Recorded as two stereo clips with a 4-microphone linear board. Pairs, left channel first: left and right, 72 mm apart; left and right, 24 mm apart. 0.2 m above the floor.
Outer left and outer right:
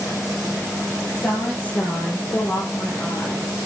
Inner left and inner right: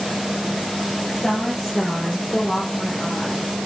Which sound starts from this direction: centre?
A woman speaking, at 1.1 s.